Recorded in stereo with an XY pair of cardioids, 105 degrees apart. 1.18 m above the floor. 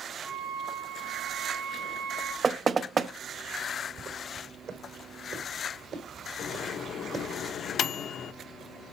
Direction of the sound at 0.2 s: 65° right.